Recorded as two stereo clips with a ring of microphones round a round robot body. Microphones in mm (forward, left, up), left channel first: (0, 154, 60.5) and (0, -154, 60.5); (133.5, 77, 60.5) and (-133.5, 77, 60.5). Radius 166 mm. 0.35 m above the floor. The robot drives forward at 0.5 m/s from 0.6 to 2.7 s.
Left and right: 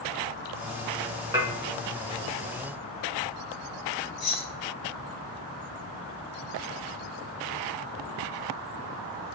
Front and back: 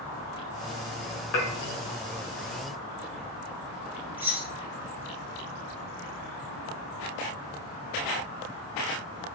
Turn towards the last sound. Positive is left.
turn(degrees=100)